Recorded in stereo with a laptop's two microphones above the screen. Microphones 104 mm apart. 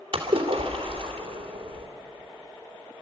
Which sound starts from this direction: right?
A splash, at 0.1 s.